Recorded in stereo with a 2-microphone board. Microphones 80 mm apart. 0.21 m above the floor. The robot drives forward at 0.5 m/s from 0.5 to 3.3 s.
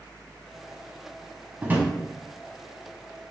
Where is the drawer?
25° right (ahead or behind), 0.7 m; by 1.9 s 20° right (ahead or behind), 0.7 m.